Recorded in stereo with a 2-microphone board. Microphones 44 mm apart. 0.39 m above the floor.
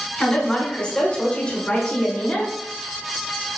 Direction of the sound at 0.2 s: 15° left (ahead or behind).